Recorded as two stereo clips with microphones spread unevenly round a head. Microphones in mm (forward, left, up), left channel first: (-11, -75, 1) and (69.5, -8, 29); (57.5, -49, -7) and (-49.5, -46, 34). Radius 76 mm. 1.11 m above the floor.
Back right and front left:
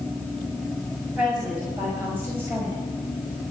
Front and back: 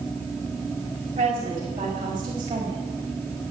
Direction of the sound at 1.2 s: 125° left.